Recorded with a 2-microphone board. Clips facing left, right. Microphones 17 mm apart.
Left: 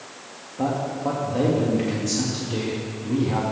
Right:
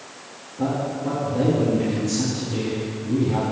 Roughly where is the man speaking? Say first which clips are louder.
Even; left.